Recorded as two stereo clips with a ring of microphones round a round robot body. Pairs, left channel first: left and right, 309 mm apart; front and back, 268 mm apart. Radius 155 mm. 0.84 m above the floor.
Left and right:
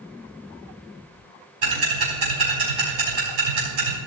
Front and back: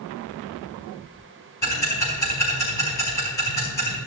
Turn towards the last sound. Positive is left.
turn(degrees=-80)